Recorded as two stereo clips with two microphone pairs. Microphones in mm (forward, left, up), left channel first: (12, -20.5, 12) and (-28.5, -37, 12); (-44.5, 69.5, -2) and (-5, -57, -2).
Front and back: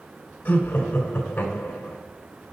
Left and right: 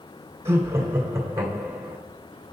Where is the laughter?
5° right, 2 m.